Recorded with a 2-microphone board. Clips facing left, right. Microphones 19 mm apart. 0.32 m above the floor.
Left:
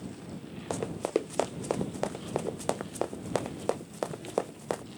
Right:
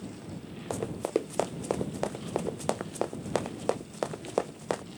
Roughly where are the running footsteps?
Centre.